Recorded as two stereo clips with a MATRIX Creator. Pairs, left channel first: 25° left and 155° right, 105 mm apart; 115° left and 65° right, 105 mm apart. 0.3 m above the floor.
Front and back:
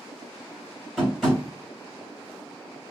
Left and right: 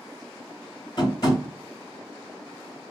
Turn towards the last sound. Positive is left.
turn(degrees=120)